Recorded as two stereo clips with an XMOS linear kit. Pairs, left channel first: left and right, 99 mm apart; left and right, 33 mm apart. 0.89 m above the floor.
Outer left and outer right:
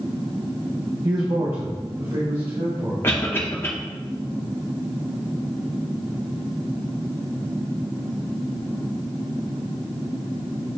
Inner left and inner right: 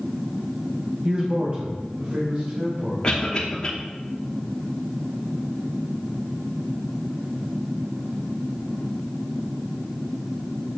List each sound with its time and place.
1.0 s a man speaking: 35° right (ahead or behind), 0.6 m; by 2.9 s 60° right (ahead or behind), 3 m
3.0 s a cough: 25° left (ahead or behind), 0.9 m